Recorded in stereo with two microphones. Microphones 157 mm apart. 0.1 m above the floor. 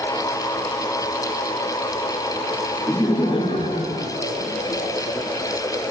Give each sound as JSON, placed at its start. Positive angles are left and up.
{"t": 2.9, "sound": "laughter", "side_deg": 20, "distance_m": 1.4}